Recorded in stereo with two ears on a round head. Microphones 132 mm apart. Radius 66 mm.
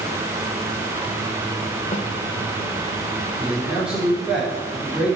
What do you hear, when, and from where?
1.9 s a snare drum: 50° left (ahead or behind), 0.9 m
3.4 s a man speaking: 5° right (ahead or behind), 5 m